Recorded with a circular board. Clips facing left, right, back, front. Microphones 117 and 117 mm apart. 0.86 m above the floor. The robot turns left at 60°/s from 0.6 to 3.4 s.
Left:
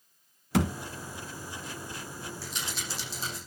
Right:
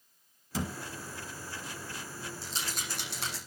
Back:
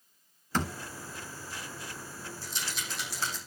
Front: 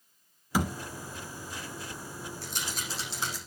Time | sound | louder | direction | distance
0.5 | a thud | left 8 dB, front 3 dB | 80° left | 1.8 m
2.4 | a rattle | left 1 dB, even | 25° right | 9 m